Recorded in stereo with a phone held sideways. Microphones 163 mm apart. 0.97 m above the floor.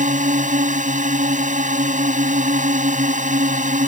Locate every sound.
0.0 s a drone: 50° right (ahead or behind)